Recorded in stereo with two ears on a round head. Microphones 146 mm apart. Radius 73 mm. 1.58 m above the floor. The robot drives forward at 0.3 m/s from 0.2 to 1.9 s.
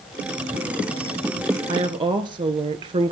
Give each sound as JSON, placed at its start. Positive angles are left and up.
{"t": 1.7, "sound": "a woman speaking", "side_deg": -35, "distance_m": 1.4}